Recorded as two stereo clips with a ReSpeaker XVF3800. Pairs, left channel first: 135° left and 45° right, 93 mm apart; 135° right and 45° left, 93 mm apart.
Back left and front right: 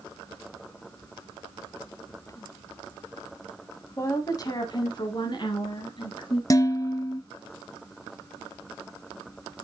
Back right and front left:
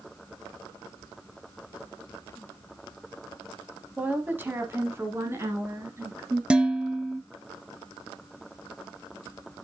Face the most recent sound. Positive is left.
turn(degrees=120)